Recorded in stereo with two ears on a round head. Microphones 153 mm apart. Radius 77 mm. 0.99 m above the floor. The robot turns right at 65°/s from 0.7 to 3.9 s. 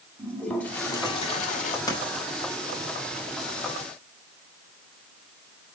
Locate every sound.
0.2 s a toilet flushing: 10° left, 1.2 m; by 1.8 s 80° left, 1.2 m
1.9 s writing: 20° left (ahead or behind), 4 m; by 2.2 s 45° left (ahead or behind), 4 m